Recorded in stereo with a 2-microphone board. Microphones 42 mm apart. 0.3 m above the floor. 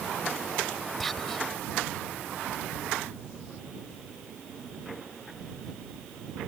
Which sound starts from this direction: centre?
Whispering, at 1.0 s.